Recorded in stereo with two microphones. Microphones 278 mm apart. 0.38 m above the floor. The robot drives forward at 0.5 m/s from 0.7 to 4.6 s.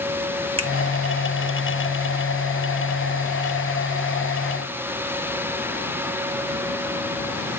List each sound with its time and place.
0.6 s a finger snap: 20° right (ahead or behind), 1.1 m